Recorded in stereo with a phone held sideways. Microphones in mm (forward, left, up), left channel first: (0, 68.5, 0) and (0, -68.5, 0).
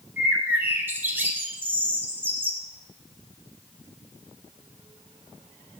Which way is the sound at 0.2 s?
15° right (ahead or behind).